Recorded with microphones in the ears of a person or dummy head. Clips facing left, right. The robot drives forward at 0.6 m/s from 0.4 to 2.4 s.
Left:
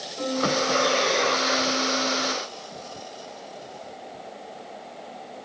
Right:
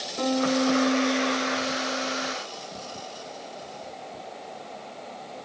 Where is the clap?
No clap in this recording.